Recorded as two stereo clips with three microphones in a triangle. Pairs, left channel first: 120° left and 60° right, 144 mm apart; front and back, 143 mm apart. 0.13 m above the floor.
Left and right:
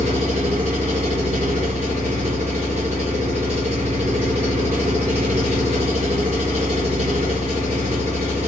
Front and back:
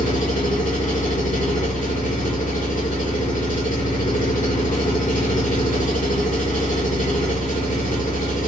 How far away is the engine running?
About 2.5 m.